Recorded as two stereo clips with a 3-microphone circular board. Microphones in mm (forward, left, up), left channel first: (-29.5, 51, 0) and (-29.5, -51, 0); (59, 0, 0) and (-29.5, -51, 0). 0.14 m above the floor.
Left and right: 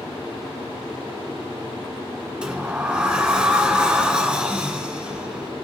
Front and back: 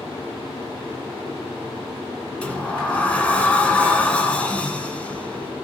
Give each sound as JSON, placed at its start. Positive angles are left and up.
{"t": 2.4, "sound": "a sliding door", "azimuth_deg": -25, "distance_m": 1.2}